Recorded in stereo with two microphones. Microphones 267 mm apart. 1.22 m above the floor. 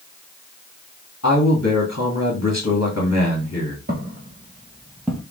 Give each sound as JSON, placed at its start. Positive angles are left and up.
{"t": 1.2, "sound": "a man speaking", "side_deg": 75, "distance_m": 2.0}
{"t": 3.9, "sound": "footsteps", "side_deg": -35, "distance_m": 1.6}